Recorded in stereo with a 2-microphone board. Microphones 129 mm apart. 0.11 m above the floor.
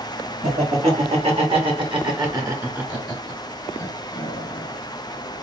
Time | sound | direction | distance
0.4 | laughter | 60° right (ahead or behind) | 2.5 m